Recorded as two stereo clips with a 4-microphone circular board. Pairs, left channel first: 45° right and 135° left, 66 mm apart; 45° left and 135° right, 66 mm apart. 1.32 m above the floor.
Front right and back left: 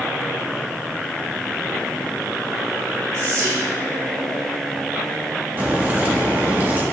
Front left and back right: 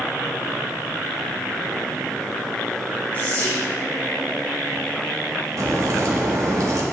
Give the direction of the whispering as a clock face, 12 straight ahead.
8 o'clock.